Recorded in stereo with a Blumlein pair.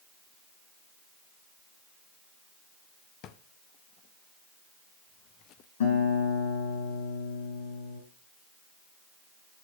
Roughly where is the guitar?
Ahead left.